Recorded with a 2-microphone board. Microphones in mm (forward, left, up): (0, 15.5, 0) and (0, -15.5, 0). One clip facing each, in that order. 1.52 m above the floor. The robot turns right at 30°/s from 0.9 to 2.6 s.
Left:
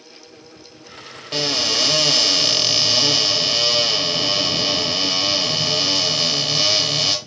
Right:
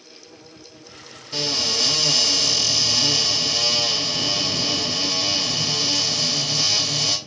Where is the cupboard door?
90° left, 0.9 m; by 7.2 s 130° left, 0.9 m.